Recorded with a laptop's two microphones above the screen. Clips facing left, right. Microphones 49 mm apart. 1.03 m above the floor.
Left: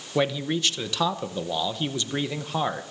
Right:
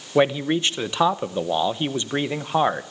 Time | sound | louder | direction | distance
0.1 | a man speaking | right 5 dB | 25° right (ahead or behind) | 0.7 m